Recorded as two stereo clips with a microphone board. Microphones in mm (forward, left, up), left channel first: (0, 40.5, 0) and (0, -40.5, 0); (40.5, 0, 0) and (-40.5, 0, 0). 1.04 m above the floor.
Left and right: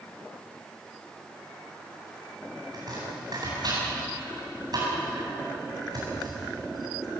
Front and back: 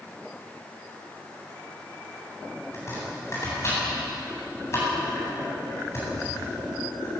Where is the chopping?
55° right, 9 m.